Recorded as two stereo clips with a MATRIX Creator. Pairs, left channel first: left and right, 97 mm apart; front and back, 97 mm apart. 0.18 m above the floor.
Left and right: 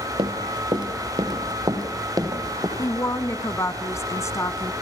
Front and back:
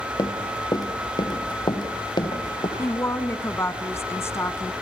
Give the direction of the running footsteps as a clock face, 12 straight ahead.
2 o'clock.